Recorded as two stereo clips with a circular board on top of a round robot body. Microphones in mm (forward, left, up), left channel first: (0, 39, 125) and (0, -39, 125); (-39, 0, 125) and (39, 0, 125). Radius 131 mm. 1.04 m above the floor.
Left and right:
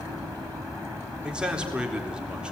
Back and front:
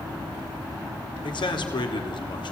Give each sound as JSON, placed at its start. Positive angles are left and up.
{"t": 1.2, "sound": "a man speaking", "azimuth_deg": -165, "distance_m": 3.5}